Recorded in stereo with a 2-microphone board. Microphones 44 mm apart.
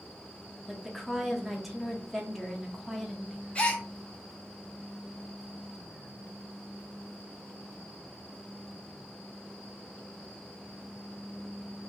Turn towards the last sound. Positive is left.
turn(degrees=25)  # may be behind; listen again after turning